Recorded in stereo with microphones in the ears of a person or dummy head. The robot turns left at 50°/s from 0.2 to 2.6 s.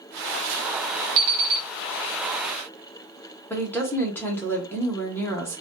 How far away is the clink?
I don't hear a clink.